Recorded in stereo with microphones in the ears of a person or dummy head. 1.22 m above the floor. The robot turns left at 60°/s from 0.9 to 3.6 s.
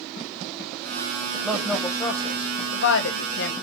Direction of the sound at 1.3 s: 10° right (ahead or behind).